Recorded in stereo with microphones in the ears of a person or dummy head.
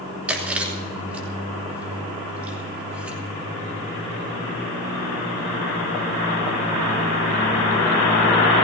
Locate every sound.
0.3 s chewing: 10° right (ahead or behind), 3 m